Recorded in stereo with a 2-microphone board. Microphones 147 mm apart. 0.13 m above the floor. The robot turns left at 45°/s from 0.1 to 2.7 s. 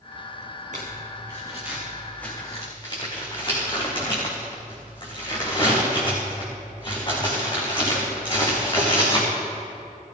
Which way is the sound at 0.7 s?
55° right (ahead or behind).